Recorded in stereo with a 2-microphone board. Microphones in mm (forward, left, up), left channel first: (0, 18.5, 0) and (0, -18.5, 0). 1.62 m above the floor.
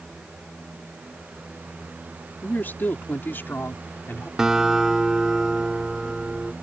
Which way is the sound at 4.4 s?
15° right (ahead or behind).